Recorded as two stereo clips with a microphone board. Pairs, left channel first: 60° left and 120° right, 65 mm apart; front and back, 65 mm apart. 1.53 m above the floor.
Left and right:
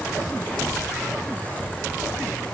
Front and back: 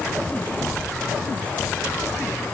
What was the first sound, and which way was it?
Only background noise.